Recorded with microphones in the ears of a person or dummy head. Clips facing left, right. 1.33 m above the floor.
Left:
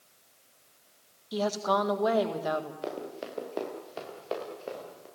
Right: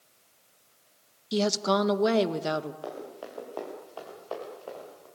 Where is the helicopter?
I don't hear a helicopter.